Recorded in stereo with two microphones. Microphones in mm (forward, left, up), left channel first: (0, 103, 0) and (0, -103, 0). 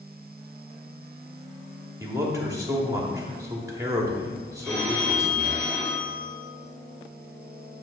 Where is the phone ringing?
10° left (ahead or behind), 2.5 m.